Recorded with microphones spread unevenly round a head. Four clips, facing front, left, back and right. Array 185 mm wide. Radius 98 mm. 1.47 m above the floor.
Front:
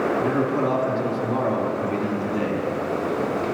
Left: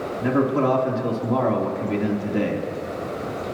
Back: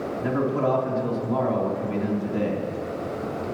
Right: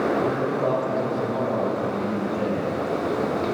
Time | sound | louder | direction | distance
0.2 | a man speaking | left 3 dB, front 2 dB | 75° left | 3.5 m